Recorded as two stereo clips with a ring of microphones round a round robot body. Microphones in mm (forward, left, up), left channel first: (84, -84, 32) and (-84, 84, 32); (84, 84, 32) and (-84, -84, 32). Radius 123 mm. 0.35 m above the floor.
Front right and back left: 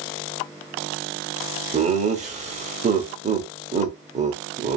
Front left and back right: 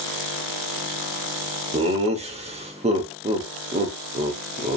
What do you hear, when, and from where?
1.7 s laughter: 175° left, 1.0 m